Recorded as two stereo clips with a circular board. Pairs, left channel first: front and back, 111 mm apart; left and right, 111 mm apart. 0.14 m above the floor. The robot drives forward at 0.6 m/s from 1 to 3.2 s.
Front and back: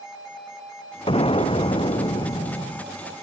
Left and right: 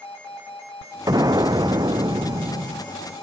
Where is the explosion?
35° right; by 2.9 s 45° right.